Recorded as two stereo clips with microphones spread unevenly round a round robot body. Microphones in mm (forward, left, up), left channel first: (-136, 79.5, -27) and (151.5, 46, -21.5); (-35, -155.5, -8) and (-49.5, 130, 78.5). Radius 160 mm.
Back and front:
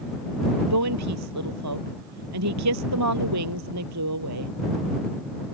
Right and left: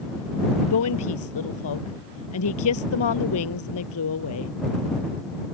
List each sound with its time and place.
0.7 s a woman speaking: 50° right